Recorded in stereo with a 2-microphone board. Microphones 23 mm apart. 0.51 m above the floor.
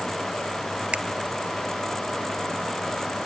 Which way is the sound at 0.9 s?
55° right (ahead or behind).